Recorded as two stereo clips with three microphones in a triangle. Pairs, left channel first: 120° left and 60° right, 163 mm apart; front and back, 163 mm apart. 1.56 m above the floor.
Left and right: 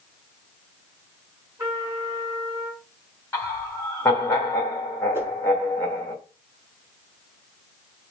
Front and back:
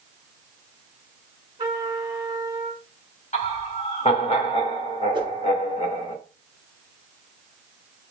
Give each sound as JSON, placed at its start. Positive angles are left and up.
{"t": 1.6, "sound": "a trumpet", "azimuth_deg": -120, "distance_m": 1.7}
{"t": 3.3, "sound": "laughter", "azimuth_deg": 45, "distance_m": 1.3}
{"t": 5.1, "sound": "a whoosh", "azimuth_deg": -130, "distance_m": 1.0}